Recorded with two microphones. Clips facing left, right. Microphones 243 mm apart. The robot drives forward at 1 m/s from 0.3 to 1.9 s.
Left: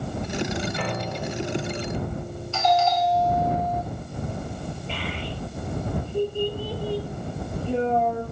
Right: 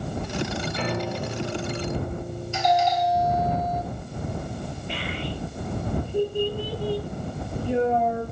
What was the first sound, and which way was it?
A piano, 25° right (ahead or behind).